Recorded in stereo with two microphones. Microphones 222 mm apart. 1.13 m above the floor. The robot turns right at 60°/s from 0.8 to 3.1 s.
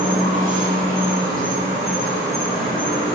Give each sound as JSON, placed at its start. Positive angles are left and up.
{"t": 0.0, "sound": "an insect", "azimuth_deg": -110, "distance_m": 0.7}